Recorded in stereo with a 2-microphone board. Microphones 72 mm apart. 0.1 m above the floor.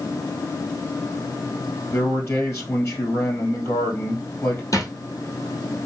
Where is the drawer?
50° left (ahead or behind), 1.1 m.